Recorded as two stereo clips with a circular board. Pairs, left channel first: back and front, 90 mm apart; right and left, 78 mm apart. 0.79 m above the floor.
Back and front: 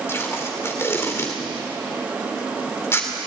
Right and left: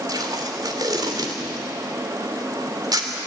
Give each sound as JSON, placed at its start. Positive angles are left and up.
{"t": 0.1, "sound": "tape being pulled", "azimuth_deg": 120, "distance_m": 3.0}